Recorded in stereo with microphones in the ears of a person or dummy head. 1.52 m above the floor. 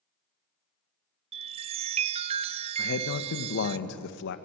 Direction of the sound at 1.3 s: 25° right (ahead or behind).